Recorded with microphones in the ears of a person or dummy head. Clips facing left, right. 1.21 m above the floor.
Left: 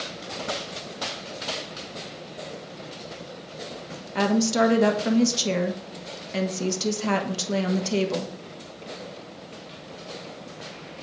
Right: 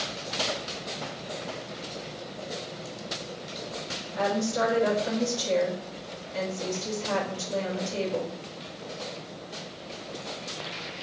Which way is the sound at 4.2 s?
75° left (ahead or behind).